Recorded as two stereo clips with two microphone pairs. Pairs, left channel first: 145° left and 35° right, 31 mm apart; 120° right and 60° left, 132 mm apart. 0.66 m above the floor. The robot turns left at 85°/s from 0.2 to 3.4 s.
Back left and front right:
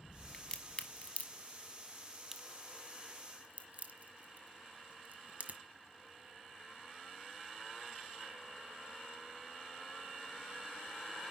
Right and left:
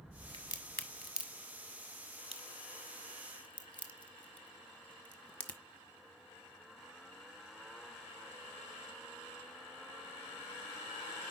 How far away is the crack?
About 1.1 m.